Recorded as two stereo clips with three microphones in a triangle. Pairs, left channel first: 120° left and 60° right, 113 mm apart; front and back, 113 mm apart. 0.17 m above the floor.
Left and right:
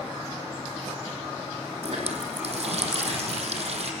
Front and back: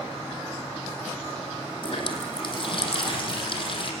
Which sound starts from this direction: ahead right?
A running tap, at 1.8 s.